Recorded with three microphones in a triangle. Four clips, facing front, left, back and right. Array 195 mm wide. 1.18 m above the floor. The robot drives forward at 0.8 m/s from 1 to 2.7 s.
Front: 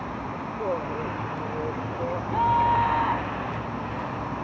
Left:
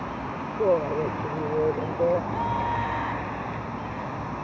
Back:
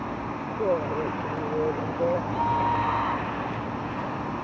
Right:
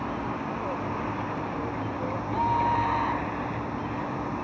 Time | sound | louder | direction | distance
0.6 | a woman speaking | left 8 dB, back 4 dB | 105° left | ?
2.3 | a scream | right 2 dB, front 3 dB | 5° right | ?